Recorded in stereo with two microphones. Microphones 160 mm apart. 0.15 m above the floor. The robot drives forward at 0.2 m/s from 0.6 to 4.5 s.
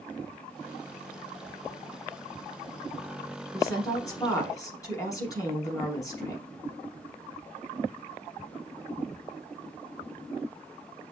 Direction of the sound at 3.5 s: 20° left (ahead or behind).